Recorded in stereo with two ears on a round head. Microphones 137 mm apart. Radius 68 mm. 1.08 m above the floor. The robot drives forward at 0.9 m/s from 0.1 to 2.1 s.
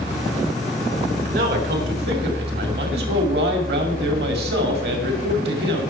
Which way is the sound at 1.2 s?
60° right (ahead or behind).